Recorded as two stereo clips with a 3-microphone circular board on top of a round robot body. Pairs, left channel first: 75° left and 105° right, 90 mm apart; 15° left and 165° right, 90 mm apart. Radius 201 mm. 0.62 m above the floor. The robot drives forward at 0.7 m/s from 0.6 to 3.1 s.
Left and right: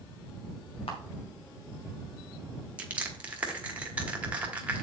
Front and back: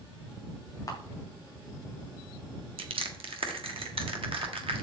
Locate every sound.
0.9 s a camera shutter: 65° left, 2 m; by 1.0 s 70° left, 2 m
2.8 s crushing: straight behind, 1.2 m